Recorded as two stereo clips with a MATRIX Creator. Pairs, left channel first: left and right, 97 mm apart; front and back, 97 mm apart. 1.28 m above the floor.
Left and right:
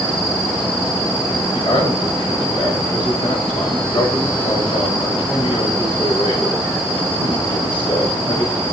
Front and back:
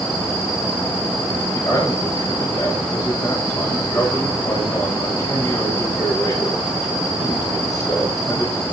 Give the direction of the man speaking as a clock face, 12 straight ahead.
10 o'clock.